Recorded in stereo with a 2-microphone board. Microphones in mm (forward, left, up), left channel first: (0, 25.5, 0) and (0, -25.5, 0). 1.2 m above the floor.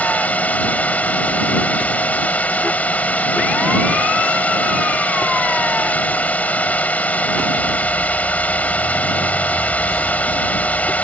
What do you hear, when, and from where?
0.0 s a drone: 30° left (ahead or behind)